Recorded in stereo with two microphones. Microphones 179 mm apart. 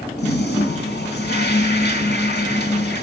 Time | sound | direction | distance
0.2 | a toilet flushing | 70° left (ahead or behind) | 3.5 m